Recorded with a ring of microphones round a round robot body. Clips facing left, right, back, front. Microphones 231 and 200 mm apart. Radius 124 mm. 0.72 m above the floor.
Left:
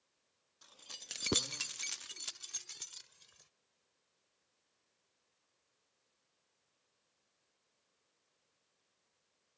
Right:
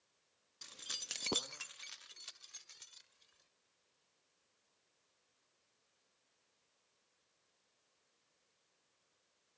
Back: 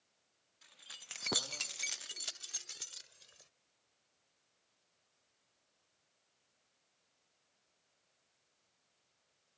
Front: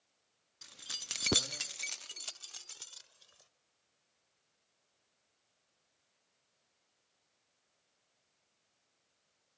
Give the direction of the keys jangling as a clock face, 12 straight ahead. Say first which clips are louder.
Right 2 dB, front 8 dB; 1 o'clock.